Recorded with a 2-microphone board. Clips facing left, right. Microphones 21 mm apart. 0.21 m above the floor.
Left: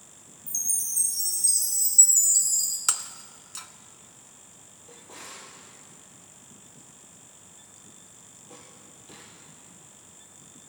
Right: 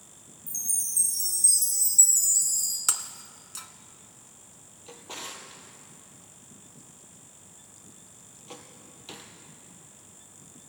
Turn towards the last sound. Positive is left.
turn(degrees=-75)  # may be behind; listen again after turning